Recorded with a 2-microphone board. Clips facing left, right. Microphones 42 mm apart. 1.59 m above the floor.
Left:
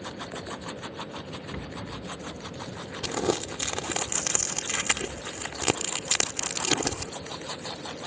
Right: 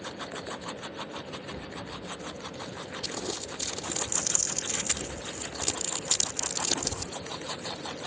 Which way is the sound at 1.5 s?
60° left (ahead or behind).